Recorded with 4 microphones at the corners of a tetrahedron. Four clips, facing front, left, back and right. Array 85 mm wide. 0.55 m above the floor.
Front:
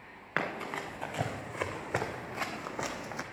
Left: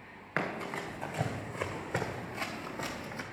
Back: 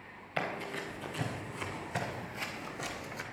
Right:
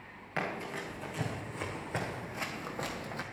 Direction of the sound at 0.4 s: 25° left.